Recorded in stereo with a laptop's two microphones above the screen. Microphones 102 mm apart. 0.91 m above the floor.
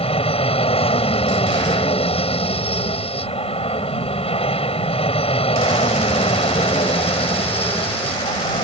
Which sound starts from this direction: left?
An aircraft, at 0.0 s.